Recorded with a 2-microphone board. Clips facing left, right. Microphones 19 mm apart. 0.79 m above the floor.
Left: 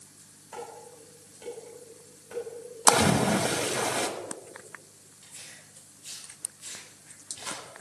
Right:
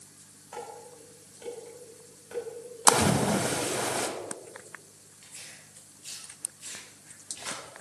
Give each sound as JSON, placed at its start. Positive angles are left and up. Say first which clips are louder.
{"t": 0.5, "sound": "dishes clattering", "louder": "even", "side_deg": -10, "distance_m": 3.5}
{"t": 2.9, "sound": "a splash", "louder": "left 1 dB", "side_deg": 20, "distance_m": 0.6}
{"t": 5.2, "sound": "tearing paper", "louder": "even", "side_deg": -25, "distance_m": 3.0}